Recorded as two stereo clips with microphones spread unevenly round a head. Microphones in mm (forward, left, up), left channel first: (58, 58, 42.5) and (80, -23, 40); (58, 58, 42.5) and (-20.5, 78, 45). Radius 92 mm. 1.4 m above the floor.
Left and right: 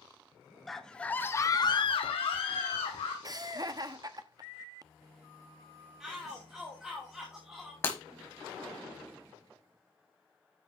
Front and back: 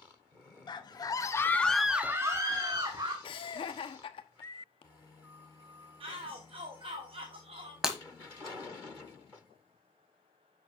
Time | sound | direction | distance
0.7 | a scream | 15° left | 1.7 m
3.2 | laughter | 30° right | 1.1 m
6.0 | a shout | 160° right | 1.0 m
7.8 | breaking glass | 95° left | 1.3 m